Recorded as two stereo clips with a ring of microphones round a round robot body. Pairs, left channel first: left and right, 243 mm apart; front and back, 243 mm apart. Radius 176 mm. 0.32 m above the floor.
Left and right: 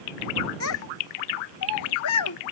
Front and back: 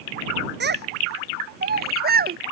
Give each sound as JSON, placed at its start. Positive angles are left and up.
{"t": 0.6, "sound": "a child speaking", "azimuth_deg": 135}